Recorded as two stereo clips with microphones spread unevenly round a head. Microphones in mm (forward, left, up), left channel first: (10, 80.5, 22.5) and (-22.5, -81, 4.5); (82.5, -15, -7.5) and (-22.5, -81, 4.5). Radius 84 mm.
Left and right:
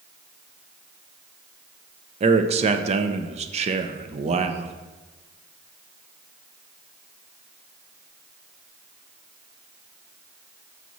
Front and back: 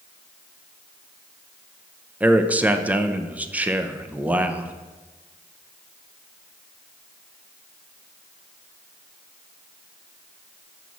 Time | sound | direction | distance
2.2 | a man speaking | 65° right | 0.6 m